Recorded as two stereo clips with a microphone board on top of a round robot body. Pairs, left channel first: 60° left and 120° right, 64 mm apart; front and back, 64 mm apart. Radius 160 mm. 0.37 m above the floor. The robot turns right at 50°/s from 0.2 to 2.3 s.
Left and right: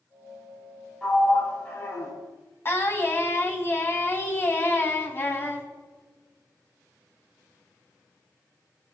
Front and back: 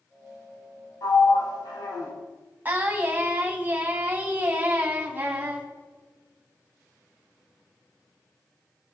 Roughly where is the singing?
Behind left.